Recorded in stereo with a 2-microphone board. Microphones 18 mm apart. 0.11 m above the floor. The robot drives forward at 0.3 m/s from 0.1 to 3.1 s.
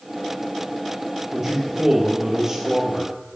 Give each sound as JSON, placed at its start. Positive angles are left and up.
{"t": 1.3, "sound": "a man speaking", "side_deg": -30, "distance_m": 2.5}